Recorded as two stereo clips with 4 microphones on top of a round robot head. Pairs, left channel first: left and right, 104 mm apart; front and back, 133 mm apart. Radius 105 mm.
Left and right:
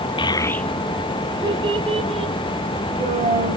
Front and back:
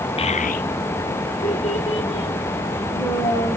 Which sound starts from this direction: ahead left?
A child speaking, at 0.2 s.